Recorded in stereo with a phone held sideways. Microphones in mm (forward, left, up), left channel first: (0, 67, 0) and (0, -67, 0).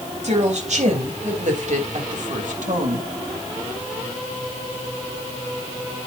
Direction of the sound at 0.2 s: 60° right (ahead or behind).